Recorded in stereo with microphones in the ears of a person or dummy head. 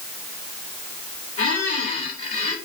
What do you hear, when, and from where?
1.4 s a squeak: 45° left (ahead or behind), 3 m